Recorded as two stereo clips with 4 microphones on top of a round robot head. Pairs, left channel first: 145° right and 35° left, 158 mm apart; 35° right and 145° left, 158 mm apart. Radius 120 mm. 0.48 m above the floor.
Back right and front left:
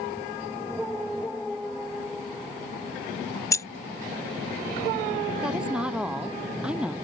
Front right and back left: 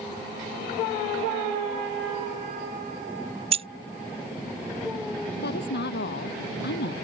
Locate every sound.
3.5 s keys jangling: 160° left
5.4 s a woman speaking: 45° right